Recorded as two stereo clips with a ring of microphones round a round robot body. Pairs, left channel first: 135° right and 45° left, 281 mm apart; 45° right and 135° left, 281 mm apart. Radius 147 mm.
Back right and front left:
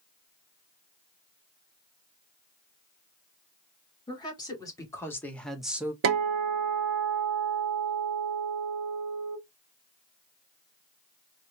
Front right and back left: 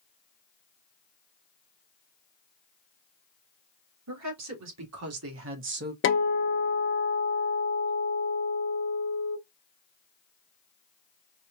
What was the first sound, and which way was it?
A woman speaking, 150° left.